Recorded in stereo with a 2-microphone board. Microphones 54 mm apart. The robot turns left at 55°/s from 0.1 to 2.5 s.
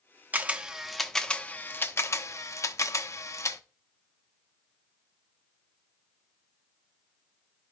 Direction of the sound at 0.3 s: 35° right (ahead or behind).